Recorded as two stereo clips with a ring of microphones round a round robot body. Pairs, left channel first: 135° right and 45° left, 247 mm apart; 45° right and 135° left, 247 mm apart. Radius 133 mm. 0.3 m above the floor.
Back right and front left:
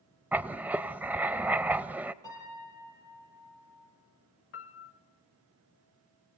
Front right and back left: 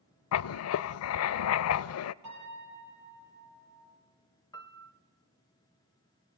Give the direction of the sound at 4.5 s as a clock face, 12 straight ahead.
4 o'clock.